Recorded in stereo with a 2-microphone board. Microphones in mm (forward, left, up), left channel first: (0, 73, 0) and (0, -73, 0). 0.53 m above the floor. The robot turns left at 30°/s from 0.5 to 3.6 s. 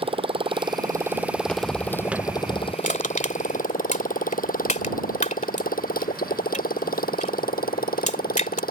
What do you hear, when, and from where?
0.0 s a motorcycle: 40° right (ahead or behind); by 8.7 s 90° left
1.4 s footsteps: 10° left (ahead or behind); by 2.7 s 25° right (ahead or behind)
2.8 s crushing: 65° left (ahead or behind); by 8.6 s 55° left (ahead or behind)